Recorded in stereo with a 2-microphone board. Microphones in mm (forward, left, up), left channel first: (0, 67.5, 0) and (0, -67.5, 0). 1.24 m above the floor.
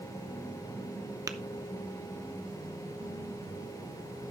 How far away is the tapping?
About 0.7 m.